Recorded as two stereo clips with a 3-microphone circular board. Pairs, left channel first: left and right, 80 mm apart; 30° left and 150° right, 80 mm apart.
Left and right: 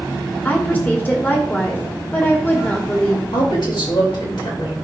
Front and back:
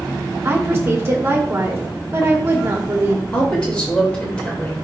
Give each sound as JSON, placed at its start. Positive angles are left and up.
{"t": 0.5, "sound": "a woman speaking", "azimuth_deg": 155, "distance_m": 1.7}
{"t": 3.3, "sound": "a woman speaking", "azimuth_deg": 105, "distance_m": 3.5}